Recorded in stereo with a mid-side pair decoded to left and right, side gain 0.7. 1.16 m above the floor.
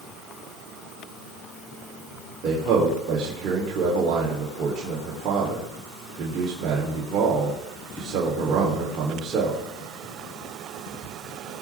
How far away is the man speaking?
About 3.5 m.